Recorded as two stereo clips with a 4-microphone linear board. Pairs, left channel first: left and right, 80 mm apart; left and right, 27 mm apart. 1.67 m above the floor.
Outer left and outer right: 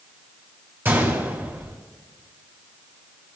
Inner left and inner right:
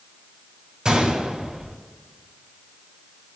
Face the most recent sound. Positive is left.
turn(degrees=-30)  # may be behind; listen again after turning